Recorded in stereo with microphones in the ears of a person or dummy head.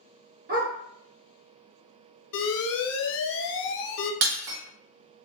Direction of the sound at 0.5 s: 55° right (ahead or behind).